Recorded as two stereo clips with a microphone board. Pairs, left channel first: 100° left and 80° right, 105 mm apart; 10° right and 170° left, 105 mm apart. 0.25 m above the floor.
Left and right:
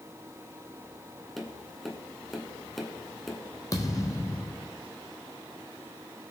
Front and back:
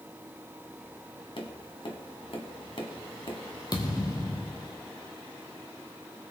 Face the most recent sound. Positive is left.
turn(degrees=40)